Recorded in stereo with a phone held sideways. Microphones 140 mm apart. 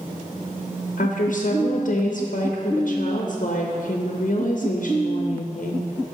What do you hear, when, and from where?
1.0 s a woman speaking: 65° left (ahead or behind), 0.7 m